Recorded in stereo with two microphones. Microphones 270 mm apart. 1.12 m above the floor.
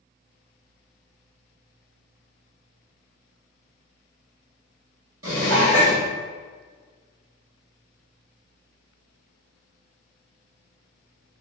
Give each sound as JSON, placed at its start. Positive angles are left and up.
{"t": 5.2, "sound": "dishes clattering", "side_deg": -55, "distance_m": 1.6}